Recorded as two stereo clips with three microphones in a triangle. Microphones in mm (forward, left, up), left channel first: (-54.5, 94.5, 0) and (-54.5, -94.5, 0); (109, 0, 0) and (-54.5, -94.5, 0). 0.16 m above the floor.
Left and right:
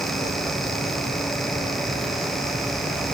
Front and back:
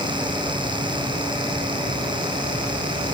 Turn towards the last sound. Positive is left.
No sound to turn to.